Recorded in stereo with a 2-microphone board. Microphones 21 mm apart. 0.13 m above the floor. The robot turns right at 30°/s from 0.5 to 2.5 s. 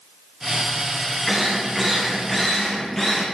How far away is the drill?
About 4.5 m.